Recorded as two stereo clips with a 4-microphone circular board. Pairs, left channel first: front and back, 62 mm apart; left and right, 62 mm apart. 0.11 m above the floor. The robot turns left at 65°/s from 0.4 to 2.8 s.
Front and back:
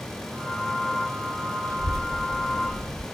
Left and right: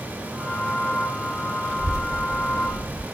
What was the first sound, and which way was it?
A child speaking, 5° left.